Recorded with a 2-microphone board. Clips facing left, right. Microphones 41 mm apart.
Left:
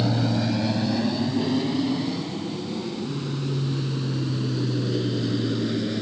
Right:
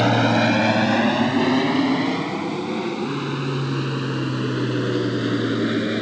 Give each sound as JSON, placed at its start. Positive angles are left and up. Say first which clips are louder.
{"t": 0.0, "sound": "an aircraft", "louder": "right 7 dB", "side_deg": -60}